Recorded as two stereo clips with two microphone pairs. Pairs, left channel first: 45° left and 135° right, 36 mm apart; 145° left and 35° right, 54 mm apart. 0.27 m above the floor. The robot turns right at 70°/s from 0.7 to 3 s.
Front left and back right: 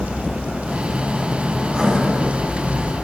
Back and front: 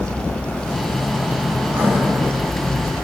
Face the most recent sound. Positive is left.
turn(degrees=25)